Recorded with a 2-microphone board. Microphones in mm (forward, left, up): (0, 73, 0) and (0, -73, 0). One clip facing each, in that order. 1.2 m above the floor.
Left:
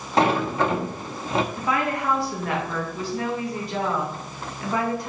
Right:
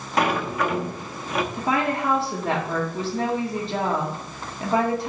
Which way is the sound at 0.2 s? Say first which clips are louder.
Left 3 dB; 25° left (ahead or behind).